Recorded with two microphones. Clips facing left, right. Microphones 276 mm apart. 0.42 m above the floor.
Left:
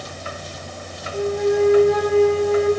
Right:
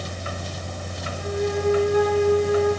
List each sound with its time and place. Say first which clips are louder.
1.1 s a flute: left 7 dB; 80° left, 9.5 m